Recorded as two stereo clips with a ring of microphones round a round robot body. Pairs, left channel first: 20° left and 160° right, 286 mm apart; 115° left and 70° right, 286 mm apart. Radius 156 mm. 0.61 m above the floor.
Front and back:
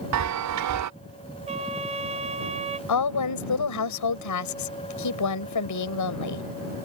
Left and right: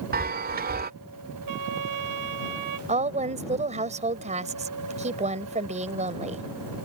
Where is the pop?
No pop in this recording.